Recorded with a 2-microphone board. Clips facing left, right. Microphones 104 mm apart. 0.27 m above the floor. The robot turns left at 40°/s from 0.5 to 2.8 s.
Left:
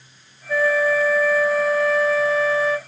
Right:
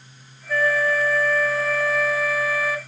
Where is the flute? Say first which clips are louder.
Left 3 dB; 15° left (ahead or behind), 0.7 m; by 2.8 s 10° right (ahead or behind), 0.7 m.